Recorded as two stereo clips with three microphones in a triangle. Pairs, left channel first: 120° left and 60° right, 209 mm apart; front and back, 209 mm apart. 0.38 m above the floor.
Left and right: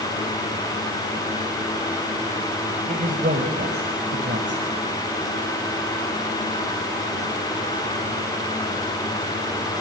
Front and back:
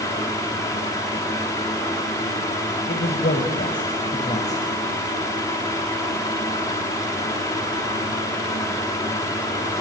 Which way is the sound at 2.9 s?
20° right.